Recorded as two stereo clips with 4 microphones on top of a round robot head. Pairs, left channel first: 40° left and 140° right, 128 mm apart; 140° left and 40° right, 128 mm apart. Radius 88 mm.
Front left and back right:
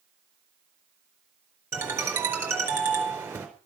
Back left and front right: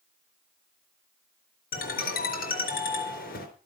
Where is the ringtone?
145° left, 4 m.